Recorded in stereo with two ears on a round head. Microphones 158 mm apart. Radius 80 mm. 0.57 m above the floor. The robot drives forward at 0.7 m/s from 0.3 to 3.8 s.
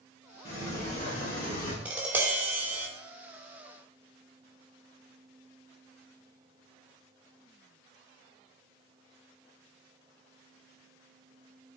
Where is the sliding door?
40° left (ahead or behind), 5 m; by 1.8 s 45° left (ahead or behind), 4.5 m.